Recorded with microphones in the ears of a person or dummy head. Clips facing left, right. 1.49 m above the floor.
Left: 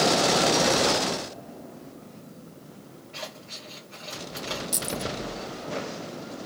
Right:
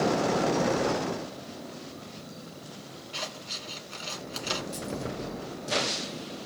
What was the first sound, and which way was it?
Scissors, 45° right (ahead or behind).